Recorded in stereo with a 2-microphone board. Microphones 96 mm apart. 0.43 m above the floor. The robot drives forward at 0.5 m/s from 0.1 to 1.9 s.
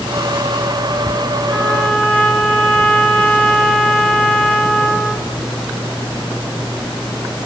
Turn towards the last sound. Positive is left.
turn(degrees=5)  # may be behind; listen again after turning